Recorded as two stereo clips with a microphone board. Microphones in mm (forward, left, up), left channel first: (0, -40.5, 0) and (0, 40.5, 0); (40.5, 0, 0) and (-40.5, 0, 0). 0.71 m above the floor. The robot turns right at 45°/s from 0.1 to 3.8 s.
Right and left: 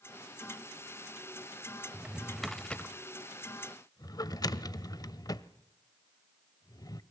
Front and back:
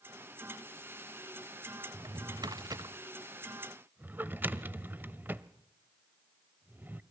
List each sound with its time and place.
1.9 s a drawer: 160° left, 0.8 m; by 7.0 s 120° right, 0.8 m